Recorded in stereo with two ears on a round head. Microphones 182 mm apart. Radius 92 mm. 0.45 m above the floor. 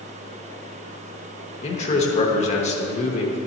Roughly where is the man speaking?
Left.